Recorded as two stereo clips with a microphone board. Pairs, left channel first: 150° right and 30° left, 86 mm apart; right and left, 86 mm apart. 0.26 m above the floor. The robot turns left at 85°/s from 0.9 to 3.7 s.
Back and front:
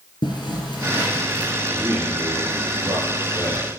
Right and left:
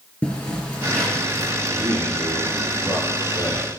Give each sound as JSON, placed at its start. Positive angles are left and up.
{"t": 0.2, "sound": "a zipper", "azimuth_deg": -165, "distance_m": 4.5}
{"t": 1.7, "sound": "a man speaking", "azimuth_deg": 105, "distance_m": 4.5}